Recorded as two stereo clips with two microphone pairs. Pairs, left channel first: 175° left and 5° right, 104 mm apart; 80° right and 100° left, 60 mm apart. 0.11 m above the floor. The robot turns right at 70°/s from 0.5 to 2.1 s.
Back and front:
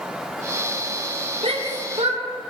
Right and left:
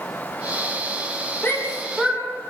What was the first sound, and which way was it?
A shout, 30° right.